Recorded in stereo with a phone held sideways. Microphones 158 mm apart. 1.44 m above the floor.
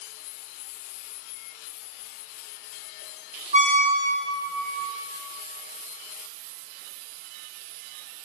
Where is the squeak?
45° right (ahead or behind), 1.0 m.